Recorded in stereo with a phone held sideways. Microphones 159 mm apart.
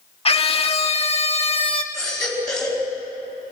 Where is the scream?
35° left (ahead or behind), 1.8 m.